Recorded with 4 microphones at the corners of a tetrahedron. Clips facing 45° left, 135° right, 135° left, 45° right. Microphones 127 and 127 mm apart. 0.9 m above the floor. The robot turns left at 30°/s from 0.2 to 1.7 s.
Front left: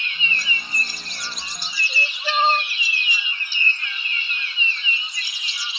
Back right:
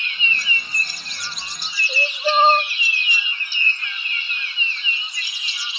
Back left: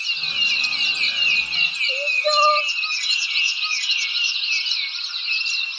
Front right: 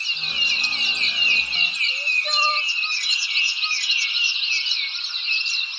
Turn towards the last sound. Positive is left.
turn(degrees=175)